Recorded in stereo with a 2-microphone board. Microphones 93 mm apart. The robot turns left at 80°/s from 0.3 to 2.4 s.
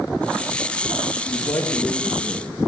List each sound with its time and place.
1.1 s a man speaking: 75° left, 1.8 m; by 2.5 s 25° right, 1.8 m